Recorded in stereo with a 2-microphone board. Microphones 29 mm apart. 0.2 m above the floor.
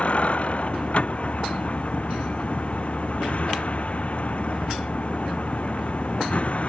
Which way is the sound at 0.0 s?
45° left (ahead or behind).